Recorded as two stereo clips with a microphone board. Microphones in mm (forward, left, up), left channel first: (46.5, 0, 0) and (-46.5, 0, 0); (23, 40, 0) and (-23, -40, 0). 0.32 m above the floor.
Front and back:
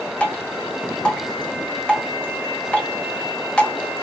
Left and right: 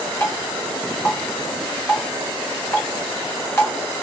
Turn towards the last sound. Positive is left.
turn(degrees=65)